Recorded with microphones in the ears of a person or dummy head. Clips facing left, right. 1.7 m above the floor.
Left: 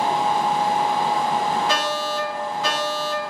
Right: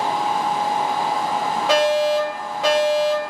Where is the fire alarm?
60° right (ahead or behind), 1.9 m.